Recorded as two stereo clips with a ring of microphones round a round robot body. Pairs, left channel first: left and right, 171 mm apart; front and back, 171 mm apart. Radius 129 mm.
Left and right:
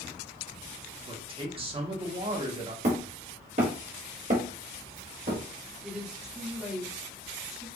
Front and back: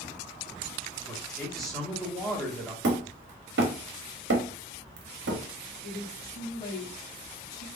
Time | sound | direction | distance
1.1 | a man speaking | 85° right | 1.1 m
2.8 | hammering | 150° right | 0.8 m
5.8 | a woman speaking | 5° right | 1.6 m